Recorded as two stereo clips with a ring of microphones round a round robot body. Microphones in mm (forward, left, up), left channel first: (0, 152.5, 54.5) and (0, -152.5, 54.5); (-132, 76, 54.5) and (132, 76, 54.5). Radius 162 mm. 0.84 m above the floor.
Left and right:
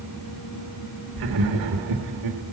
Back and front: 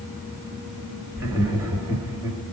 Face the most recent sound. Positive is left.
turn(degrees=-80)